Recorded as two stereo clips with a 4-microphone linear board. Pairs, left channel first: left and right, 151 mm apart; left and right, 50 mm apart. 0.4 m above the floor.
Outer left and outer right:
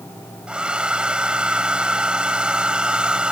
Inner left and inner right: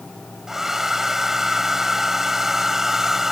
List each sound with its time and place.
0.5 s a hair dryer: 5° right (ahead or behind)